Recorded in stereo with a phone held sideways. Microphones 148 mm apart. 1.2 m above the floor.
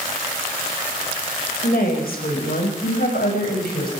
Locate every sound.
1.6 s a woman speaking: 85° left, 5.5 m; by 3.9 s 80° left, 7.5 m